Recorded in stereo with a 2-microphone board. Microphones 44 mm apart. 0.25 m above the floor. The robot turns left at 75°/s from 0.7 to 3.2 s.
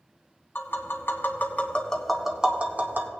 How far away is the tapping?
About 1.3 m.